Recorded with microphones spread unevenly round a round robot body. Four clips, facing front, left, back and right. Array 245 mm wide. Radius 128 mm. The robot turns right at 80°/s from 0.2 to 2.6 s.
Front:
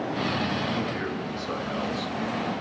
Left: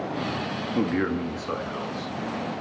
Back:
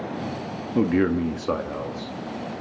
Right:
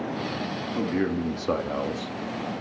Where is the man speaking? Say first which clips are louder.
Left 1 dB, back 9 dB; 165° left, 1.4 m; by 2.2 s 80° right, 1.4 m.